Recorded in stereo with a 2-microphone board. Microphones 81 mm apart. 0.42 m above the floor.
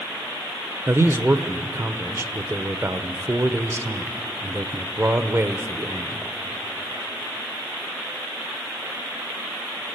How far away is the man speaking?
About 0.9 m.